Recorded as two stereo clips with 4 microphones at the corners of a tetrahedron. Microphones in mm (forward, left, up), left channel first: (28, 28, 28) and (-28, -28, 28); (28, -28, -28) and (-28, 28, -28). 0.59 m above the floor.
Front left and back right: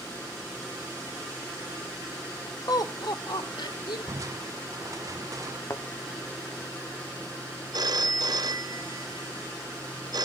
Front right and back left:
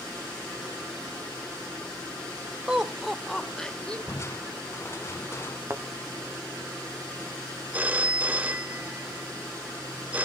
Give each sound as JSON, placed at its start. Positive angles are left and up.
{"t": 2.7, "sound": "laughter", "azimuth_deg": 60, "distance_m": 1.5}
{"t": 4.1, "sound": "crushing", "azimuth_deg": -95, "distance_m": 0.8}
{"t": 5.7, "sound": "a thud", "azimuth_deg": 85, "distance_m": 0.9}
{"t": 7.7, "sound": "a phone ringing", "azimuth_deg": -160, "distance_m": 0.5}